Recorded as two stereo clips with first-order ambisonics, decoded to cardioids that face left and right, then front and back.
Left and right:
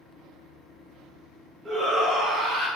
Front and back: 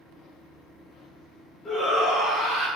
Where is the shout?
20° right, 0.9 m; by 2.7 s 110° right, 1.5 m.